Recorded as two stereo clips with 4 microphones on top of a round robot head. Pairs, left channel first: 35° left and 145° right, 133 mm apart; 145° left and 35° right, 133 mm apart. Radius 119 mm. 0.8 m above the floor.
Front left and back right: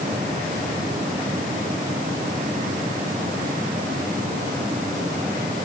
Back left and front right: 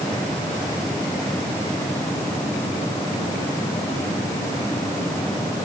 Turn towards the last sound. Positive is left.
No sound to turn to.